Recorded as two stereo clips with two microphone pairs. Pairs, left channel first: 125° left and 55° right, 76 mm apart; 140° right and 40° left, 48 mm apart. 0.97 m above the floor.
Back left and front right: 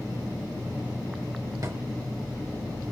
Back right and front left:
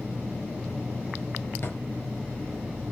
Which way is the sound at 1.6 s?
95° right.